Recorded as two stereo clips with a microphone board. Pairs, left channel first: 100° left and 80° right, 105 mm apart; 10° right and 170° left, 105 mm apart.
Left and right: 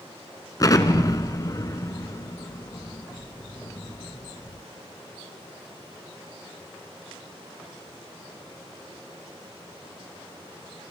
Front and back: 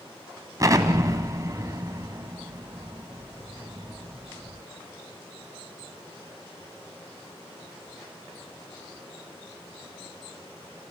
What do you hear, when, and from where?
0.6 s an explosion: 130° left, 1.3 m